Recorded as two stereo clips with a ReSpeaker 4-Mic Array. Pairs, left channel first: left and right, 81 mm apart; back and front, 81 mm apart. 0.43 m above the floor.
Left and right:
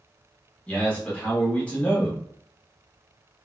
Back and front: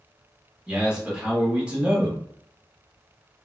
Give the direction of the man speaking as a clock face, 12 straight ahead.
10 o'clock.